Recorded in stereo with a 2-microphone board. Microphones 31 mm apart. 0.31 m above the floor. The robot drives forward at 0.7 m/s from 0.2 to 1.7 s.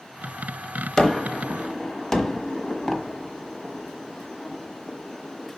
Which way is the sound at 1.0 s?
20° left (ahead or behind).